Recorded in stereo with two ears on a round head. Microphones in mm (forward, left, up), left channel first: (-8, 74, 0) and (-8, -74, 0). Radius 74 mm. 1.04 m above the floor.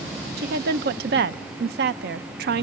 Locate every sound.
0.4 s a woman speaking: 65° right (ahead or behind), 0.6 m